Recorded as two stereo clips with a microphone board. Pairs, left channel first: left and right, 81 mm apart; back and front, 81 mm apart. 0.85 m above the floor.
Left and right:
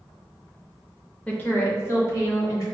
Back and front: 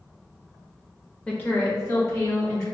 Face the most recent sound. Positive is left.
turn(degrees=135)